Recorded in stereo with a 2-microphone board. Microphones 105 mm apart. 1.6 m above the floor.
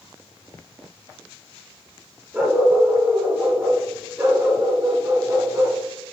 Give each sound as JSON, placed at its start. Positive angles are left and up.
{"t": 2.3, "sound": "a dog barking", "side_deg": -15, "distance_m": 9.0}